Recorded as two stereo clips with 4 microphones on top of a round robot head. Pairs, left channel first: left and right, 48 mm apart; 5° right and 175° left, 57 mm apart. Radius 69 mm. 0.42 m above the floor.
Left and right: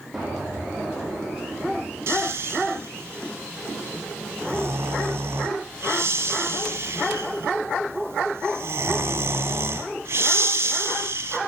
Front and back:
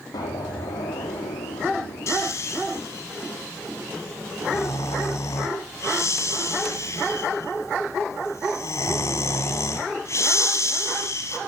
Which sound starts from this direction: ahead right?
Snoring, at 2.1 s.